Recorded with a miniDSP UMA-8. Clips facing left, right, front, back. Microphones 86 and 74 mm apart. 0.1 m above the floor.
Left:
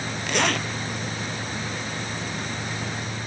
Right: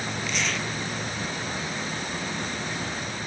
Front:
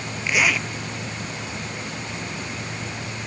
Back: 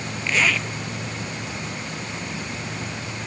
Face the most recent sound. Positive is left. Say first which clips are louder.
# left 8 dB, even
turn(degrees=75)